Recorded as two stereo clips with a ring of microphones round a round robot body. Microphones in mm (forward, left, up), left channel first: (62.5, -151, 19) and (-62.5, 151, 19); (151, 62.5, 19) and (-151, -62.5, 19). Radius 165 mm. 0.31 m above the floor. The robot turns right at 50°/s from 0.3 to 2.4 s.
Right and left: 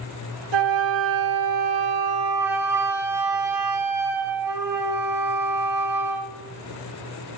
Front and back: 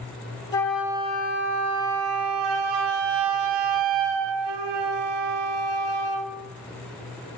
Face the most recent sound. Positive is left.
turn(degrees=-165)